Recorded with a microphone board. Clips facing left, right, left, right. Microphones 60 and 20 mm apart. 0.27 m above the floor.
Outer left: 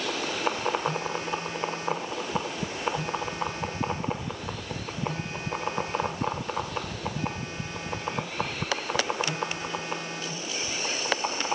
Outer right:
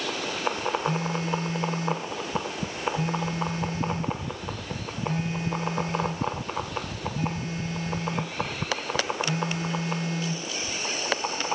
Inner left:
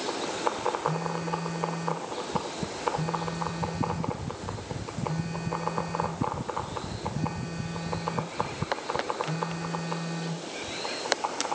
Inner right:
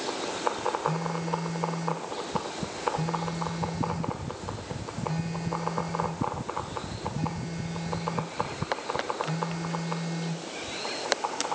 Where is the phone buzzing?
25° right (ahead or behind), 1.8 m.